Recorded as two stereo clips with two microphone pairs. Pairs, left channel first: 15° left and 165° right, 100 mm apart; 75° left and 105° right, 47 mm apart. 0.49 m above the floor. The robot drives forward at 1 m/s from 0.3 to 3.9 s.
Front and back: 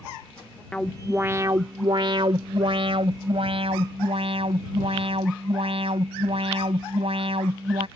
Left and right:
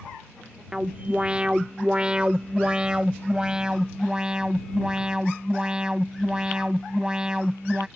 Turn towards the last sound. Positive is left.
turn(degrees=-175)